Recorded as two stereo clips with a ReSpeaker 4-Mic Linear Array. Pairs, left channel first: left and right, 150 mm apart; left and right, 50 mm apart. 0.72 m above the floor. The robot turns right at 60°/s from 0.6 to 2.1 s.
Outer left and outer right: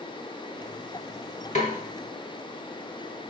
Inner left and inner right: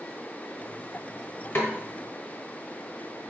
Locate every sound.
1.6 s a snare drum: 50° left (ahead or behind), 1.0 m; by 1.8 s 60° left (ahead or behind), 1.0 m